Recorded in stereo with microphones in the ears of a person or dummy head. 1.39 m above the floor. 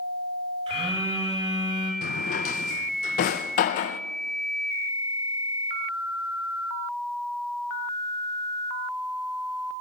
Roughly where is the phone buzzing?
Right.